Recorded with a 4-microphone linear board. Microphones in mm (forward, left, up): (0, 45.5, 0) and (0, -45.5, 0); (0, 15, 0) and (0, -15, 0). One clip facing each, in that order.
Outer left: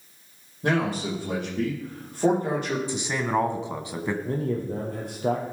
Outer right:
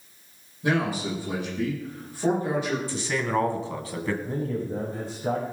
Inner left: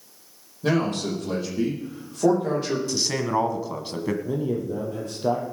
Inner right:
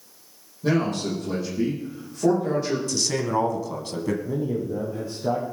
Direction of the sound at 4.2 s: 65° left (ahead or behind).